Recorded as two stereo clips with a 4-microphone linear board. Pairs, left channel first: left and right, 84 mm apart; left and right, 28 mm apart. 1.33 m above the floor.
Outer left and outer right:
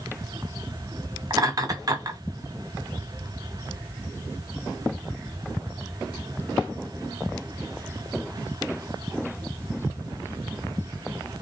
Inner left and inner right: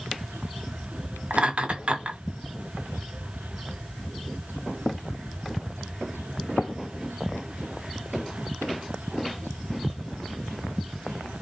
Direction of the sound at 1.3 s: 45° right (ahead or behind).